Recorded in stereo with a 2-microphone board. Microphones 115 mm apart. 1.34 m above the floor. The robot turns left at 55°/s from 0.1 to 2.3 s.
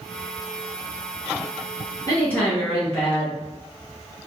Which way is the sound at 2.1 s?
30° left (ahead or behind).